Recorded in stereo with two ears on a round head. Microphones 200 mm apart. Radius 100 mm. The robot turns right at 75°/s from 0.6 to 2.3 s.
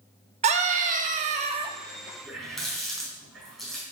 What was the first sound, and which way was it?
A scream, 120° right.